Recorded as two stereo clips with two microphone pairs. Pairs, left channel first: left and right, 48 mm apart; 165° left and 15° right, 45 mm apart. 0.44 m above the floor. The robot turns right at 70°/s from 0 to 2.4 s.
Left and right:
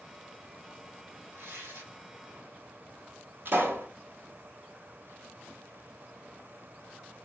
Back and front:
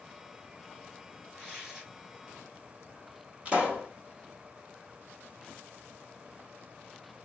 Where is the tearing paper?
115° right, 3.5 m; by 1.9 s 80° right, 3.5 m.